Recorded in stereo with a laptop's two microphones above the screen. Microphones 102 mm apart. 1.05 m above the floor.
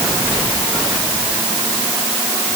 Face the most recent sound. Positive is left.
No sound to turn to.